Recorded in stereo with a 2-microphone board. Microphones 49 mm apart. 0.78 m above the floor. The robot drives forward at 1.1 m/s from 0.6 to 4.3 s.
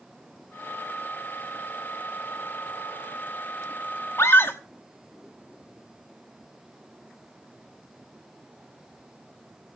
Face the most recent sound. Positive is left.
turn(degrees=55)  # may be behind; listen again after turning